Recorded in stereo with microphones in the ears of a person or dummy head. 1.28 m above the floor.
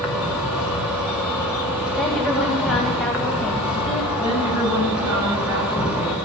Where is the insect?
10° right (ahead or behind), 2 m.